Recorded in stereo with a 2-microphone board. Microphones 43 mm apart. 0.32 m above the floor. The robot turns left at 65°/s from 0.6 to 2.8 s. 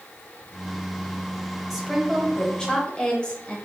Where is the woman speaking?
5° right (ahead or behind), 0.9 m; by 3.6 s 20° left (ahead or behind), 0.9 m.